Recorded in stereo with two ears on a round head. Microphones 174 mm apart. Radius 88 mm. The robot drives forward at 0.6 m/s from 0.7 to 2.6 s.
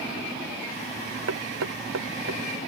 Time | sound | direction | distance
1.3 | knocking | 85° right | ?